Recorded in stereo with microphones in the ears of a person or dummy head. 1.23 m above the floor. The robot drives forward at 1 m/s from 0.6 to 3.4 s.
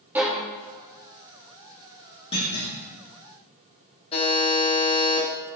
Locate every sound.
0.1 s a violin: 5° right (ahead or behind), 2 m
2.3 s a clunk: 35° left (ahead or behind), 2 m; by 2.8 s 30° left (ahead or behind), 2.5 m
4.1 s a buzzer: 25° left (ahead or behind), 2 m